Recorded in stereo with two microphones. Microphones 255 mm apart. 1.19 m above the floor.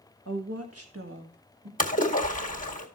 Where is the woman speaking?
85° right, 1.2 m; by 1.7 s 35° right (ahead or behind), 2 m.